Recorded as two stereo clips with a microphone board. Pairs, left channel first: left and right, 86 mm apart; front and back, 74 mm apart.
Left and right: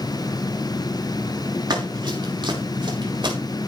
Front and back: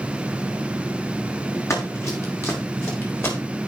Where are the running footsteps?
50° right, 4.5 m; by 3.4 s 60° right, 6 m.